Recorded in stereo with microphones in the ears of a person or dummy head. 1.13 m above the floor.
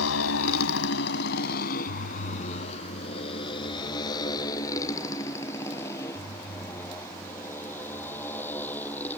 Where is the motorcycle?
80° left; by 9.2 s 5° left (ahead or behind).